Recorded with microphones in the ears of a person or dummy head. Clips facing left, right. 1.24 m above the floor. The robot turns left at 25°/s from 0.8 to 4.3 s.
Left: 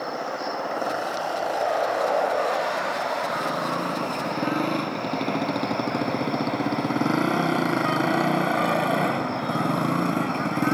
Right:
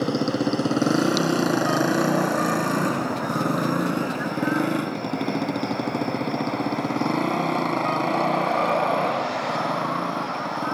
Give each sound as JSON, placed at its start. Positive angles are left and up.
{"t": 0.0, "sound": "a motorcycle", "side_deg": -60}